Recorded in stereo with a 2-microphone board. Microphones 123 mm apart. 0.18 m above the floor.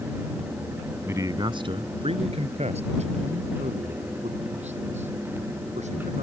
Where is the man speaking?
20° right (ahead or behind); by 6.2 s 70° right (ahead or behind).